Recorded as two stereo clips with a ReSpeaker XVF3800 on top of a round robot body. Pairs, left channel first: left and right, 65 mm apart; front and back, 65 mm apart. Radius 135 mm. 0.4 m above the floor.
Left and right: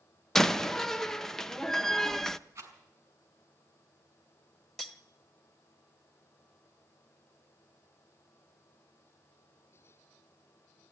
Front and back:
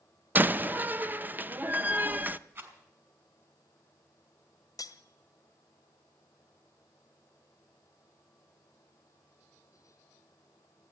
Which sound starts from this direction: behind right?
A rattle, at 2.5 s.